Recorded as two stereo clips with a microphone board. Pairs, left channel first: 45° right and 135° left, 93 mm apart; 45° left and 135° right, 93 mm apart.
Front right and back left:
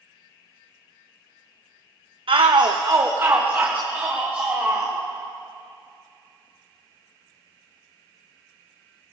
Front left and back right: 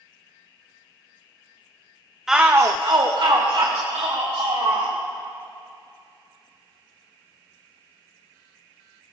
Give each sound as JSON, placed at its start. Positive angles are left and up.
{"t": 2.3, "sound": "a shout", "azimuth_deg": 140, "distance_m": 0.6}